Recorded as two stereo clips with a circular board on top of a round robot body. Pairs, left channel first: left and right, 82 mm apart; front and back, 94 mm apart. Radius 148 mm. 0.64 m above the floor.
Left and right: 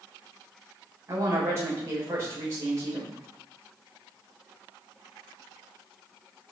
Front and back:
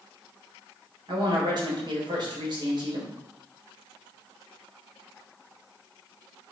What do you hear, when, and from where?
1.1 s a woman speaking: 145° right, 4 m